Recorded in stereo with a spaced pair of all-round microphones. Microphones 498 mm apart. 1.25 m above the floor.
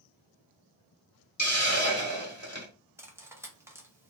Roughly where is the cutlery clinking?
Centre.